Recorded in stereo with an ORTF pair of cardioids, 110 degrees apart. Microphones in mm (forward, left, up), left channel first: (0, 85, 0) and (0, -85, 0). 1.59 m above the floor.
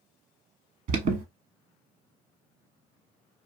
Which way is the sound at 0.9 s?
50° right.